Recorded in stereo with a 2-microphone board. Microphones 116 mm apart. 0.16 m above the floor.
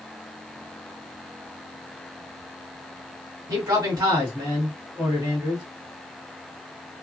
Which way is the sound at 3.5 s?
30° right (ahead or behind).